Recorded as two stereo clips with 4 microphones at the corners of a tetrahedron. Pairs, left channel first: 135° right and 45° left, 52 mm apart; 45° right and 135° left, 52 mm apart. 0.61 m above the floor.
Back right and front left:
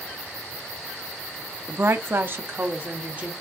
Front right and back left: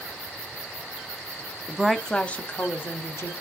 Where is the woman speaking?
65° left, 0.9 m; by 3.3 s 15° right, 1.9 m.